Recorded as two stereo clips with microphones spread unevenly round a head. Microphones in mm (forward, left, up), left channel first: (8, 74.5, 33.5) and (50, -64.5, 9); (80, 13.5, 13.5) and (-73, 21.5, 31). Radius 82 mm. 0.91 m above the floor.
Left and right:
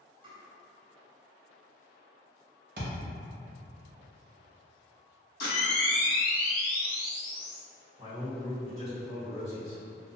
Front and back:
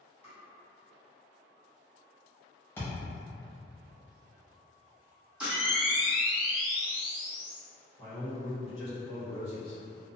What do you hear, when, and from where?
0.2 s tapping: 40° right, 1.3 m
2.8 s a thud: 80° right, 0.8 m
5.4 s a camera shutter: 95° left, 1.3 m
8.0 s a man speaking: 50° right, 1.2 m